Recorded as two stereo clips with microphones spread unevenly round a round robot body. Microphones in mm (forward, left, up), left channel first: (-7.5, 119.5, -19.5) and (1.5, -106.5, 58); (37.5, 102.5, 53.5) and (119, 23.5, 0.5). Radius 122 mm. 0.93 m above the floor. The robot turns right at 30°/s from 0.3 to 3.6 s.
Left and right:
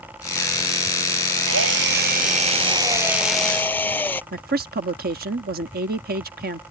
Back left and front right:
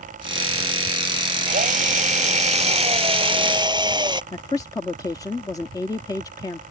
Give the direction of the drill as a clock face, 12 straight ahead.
2 o'clock.